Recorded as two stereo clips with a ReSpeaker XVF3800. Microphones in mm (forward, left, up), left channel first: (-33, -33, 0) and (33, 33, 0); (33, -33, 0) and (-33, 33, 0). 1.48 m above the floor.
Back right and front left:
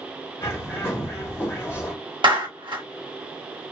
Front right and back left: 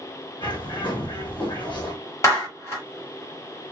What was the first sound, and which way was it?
A bird, 75° right.